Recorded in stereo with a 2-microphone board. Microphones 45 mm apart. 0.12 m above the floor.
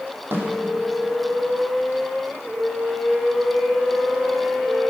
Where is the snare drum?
55° right (ahead or behind), 4.5 m.